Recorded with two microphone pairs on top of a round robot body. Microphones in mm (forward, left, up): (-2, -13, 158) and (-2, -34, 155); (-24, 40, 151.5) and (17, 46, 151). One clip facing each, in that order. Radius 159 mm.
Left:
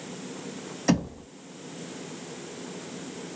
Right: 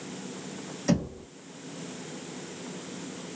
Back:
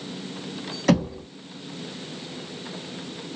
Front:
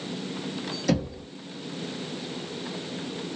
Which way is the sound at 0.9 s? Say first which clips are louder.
Left 2 dB, back 6 dB; 160° left.